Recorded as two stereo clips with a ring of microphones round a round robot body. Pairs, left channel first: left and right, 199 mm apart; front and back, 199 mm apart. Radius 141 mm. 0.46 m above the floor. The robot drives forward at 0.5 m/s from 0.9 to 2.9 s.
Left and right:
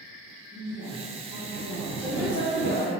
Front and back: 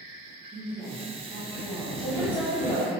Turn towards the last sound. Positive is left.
turn(degrees=135)